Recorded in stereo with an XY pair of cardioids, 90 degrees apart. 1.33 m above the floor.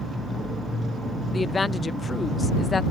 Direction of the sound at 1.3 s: 40° left.